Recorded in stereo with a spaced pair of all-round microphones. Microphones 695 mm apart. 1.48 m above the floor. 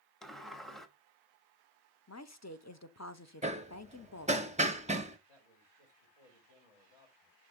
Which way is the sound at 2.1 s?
25° left (ahead or behind).